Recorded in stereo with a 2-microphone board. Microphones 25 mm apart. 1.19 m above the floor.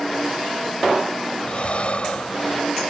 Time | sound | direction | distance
1.4 | breathing | 50° left (ahead or behind) | ?